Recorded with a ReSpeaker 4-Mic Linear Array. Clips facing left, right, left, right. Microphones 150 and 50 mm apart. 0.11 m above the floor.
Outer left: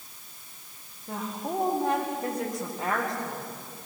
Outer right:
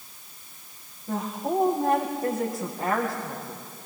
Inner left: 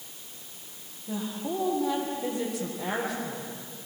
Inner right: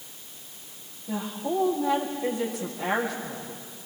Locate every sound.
1.1 s a woman speaking: 5° right (ahead or behind), 4.5 m